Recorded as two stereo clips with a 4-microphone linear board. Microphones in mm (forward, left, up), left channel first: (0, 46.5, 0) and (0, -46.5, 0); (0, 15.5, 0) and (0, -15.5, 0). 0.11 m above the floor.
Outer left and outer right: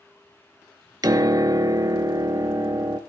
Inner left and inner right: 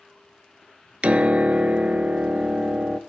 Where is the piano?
45° right (ahead or behind), 0.5 m.